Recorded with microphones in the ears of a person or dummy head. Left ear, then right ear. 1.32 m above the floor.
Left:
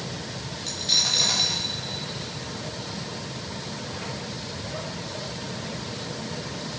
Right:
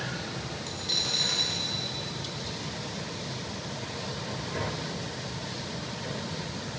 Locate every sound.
0.7 s a dropped coin: 10° left (ahead or behind), 0.7 m